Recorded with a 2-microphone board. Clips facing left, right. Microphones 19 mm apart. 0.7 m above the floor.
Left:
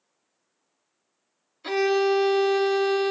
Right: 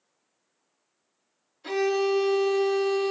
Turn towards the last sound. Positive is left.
turn(degrees=35)  # may be behind; listen again after turning